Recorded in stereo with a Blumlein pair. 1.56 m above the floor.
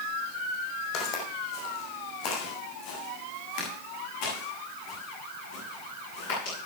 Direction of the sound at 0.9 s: 40° left.